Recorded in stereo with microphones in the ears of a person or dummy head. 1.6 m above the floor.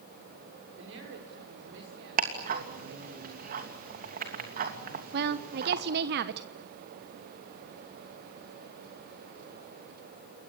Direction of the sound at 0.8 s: 85° right.